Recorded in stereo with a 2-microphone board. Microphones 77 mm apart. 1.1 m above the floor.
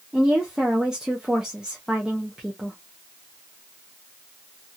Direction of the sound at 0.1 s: 10° right (ahead or behind).